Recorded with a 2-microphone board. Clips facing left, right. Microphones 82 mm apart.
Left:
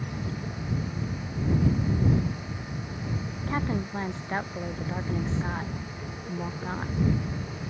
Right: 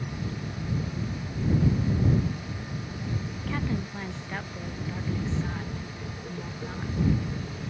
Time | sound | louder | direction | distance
3.4 | a woman speaking | left 3 dB | 30° left (ahead or behind) | ?